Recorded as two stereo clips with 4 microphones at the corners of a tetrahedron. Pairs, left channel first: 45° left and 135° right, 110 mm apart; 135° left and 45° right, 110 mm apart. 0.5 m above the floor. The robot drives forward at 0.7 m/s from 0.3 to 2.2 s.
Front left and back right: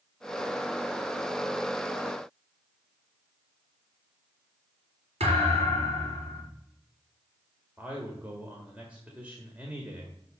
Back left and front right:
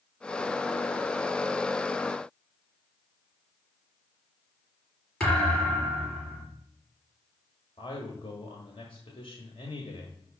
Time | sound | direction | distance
5.2 | a thud | 145° right | 4 m
7.8 | a man speaking | 150° left | 1.6 m